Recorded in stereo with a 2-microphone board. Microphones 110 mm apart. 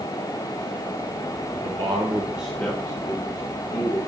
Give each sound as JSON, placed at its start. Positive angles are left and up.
{"t": 1.5, "sound": "a man speaking", "side_deg": -60, "distance_m": 1.3}